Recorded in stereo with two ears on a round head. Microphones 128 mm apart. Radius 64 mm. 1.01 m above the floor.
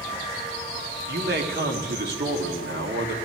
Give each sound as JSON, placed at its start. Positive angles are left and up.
{"t": 1.1, "sound": "a man speaking", "side_deg": -80, "distance_m": 1.9}